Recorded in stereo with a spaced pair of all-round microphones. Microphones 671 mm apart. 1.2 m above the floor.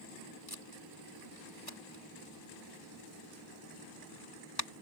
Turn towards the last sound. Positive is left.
turn(degrees=35)  # may be behind; listen again after turning